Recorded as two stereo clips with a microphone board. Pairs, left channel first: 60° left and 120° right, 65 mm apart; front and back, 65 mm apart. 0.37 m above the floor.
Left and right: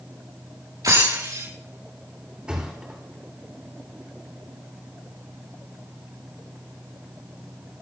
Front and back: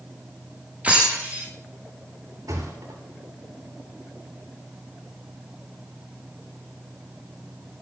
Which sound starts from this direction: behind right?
Breaking glass, at 0.8 s.